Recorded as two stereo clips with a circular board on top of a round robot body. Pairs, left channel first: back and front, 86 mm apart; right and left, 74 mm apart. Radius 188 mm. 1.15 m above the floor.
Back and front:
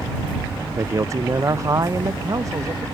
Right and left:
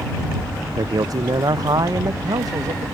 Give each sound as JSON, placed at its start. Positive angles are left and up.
{"t": 0.8, "sound": "a man speaking", "azimuth_deg": 55}